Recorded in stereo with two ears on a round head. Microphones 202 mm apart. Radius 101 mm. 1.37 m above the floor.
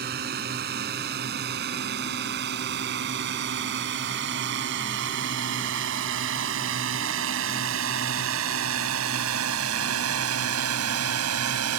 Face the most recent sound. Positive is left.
turn(degrees=-85)